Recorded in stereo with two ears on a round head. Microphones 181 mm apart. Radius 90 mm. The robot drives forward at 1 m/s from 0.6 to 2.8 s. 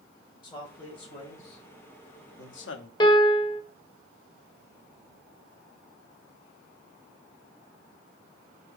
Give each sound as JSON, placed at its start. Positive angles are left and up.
{"t": 0.4, "sound": "a man speaking", "side_deg": 25, "distance_m": 2.5}
{"t": 3.0, "sound": "a piano", "side_deg": 25, "distance_m": 1.2}